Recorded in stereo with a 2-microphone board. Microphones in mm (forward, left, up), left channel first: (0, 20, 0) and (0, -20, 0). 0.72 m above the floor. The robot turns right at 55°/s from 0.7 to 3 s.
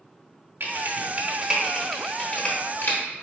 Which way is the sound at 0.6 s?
55° right (ahead or behind).